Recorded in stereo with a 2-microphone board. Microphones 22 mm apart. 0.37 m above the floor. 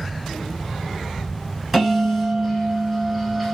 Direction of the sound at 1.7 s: 5° right (ahead or behind).